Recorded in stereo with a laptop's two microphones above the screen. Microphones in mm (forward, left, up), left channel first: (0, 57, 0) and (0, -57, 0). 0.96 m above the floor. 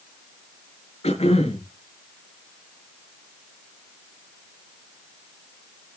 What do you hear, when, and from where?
1.0 s throat clearing: 70° left (ahead or behind), 9 m